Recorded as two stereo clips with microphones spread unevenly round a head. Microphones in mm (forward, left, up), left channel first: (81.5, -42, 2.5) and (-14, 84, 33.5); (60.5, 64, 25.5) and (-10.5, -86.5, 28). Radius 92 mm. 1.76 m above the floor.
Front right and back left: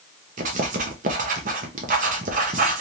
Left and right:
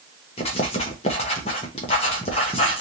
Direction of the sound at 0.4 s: 120° left.